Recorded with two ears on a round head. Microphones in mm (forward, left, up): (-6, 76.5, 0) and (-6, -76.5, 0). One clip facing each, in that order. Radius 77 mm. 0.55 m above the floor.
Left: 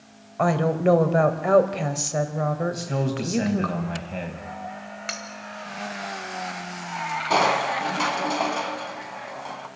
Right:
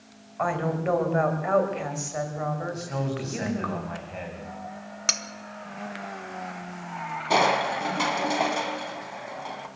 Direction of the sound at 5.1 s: 50° right (ahead or behind).